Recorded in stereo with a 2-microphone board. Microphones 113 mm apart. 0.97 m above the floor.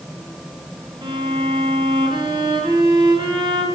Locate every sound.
1.0 s a violin: 45° right (ahead or behind), 8 m